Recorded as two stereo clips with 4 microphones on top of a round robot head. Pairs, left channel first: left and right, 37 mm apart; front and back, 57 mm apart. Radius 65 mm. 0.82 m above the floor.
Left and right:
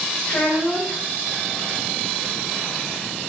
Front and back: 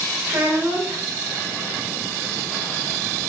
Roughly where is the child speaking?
Behind left.